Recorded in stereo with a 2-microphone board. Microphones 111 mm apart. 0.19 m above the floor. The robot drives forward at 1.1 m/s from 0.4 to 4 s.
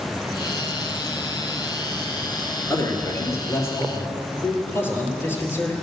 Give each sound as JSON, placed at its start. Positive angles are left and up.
{"t": 2.7, "sound": "a man speaking", "side_deg": 30, "distance_m": 3.0}